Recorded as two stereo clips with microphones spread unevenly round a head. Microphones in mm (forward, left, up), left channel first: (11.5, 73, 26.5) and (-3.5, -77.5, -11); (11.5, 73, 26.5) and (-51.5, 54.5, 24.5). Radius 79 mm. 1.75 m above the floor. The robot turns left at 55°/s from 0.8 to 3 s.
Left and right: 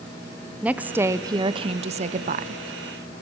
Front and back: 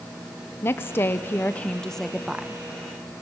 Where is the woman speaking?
Straight ahead, 0.6 m; by 2.6 s 100° right, 0.6 m.